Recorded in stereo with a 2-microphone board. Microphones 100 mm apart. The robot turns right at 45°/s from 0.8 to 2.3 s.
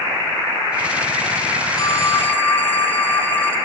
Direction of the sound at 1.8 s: 40° left (ahead or behind).